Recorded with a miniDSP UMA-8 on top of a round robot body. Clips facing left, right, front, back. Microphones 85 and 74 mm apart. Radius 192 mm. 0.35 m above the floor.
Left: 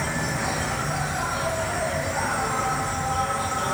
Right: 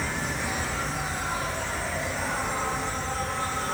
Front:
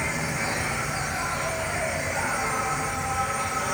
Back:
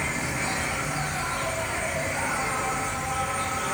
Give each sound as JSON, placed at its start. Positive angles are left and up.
{"t": 0.0, "sound": "an insect", "azimuth_deg": 75, "distance_m": 1.4}